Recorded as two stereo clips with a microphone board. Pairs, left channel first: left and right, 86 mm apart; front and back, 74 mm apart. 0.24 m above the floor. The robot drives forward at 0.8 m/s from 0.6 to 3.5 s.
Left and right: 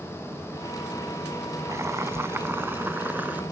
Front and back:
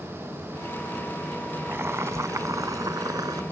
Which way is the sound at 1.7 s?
130° right.